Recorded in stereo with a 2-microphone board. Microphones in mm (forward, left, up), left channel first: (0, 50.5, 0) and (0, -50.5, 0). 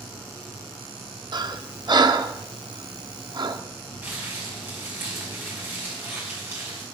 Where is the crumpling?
20° right (ahead or behind), 5 m.